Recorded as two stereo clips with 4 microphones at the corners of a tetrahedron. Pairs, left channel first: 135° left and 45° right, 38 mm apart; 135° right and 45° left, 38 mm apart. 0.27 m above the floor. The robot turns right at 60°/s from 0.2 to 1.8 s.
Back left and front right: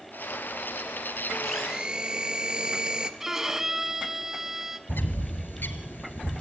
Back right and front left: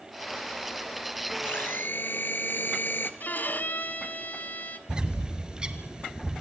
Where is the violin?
120° right, 1.5 m.